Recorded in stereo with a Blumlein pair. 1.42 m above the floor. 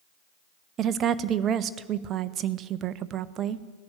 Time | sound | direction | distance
0.8 | a woman speaking | 30° right | 0.5 m